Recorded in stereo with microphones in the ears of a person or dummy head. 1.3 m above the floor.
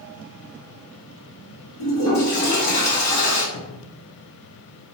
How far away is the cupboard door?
About 0.8 m.